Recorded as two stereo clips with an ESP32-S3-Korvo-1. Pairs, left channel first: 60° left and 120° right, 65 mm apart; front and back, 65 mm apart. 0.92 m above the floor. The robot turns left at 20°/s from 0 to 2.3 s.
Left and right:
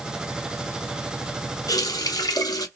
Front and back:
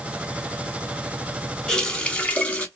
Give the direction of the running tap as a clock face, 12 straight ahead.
9 o'clock.